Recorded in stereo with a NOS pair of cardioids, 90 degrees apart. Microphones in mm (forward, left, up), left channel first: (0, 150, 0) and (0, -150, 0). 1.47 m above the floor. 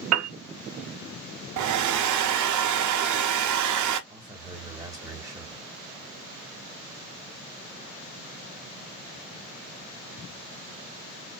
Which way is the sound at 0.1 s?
55° right.